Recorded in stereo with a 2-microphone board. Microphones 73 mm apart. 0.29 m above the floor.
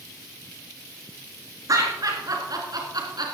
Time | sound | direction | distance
1.7 | laughter | 50° right (ahead or behind) | 4 m